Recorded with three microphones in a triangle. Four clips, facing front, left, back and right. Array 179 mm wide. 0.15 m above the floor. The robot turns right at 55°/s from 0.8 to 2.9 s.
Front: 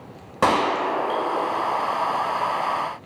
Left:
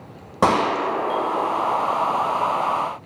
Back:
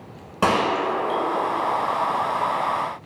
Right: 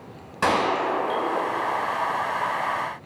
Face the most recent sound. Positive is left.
turn(degrees=-160)